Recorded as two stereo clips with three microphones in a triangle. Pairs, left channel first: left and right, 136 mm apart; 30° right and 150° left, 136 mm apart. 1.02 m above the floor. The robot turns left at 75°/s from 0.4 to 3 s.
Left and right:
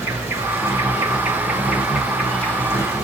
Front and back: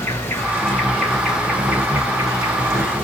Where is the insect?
55° right, 1.0 m; by 3.0 s 110° left, 1.0 m.